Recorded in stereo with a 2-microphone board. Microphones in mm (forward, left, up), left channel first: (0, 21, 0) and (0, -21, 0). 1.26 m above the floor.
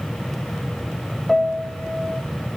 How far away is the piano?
About 1.0 m.